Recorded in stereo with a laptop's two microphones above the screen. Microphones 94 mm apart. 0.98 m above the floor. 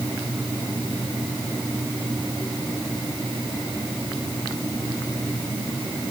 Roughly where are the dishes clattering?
I don't hear dishes clattering.